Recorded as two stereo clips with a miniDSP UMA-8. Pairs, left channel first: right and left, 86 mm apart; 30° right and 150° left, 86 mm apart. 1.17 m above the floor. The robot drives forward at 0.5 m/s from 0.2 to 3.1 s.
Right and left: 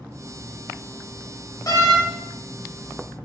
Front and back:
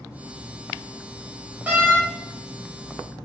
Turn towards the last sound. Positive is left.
turn(degrees=-155)